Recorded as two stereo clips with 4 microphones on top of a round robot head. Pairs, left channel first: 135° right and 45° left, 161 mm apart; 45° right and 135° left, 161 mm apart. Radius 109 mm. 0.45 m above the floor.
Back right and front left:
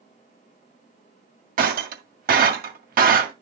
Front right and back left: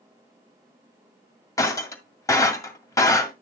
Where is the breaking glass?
25° left, 1.8 m.